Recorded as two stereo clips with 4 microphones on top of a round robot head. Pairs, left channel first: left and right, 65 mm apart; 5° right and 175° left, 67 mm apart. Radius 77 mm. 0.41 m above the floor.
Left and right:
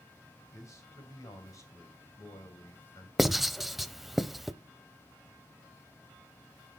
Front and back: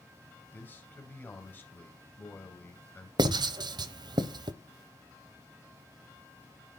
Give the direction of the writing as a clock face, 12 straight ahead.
6 o'clock.